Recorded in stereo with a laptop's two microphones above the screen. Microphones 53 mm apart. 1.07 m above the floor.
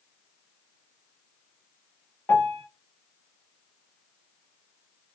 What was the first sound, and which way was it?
A piano, 60° left (ahead or behind).